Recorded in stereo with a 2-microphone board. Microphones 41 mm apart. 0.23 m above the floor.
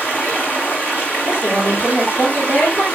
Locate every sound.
0.0 s running water: 55° left (ahead or behind), 8 m
1.2 s a woman speaking: 70° left (ahead or behind), 8.5 m